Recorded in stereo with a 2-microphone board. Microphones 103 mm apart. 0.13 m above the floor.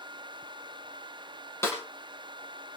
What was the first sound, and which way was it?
A snare drum, 25° left (ahead or behind).